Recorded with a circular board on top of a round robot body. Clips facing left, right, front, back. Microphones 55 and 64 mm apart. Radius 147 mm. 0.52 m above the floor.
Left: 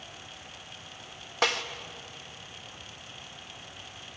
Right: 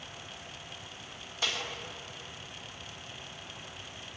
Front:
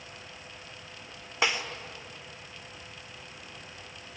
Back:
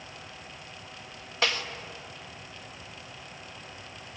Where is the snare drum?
70° left, 2.0 m.